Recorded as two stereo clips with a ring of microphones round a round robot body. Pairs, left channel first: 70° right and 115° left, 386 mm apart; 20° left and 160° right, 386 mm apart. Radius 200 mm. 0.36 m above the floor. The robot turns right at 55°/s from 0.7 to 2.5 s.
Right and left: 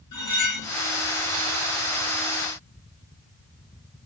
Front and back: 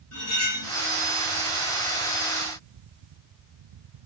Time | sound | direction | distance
0.1 | cutlery clinking | 30° right | 2.5 m